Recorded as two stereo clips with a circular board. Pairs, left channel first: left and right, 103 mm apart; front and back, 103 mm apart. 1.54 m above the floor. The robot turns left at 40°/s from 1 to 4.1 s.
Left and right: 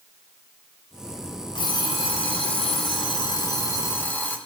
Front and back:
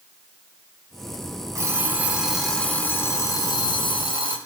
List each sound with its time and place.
1.6 s an alarm clock: 125° left, 3 m; by 4.4 s 20° left, 3 m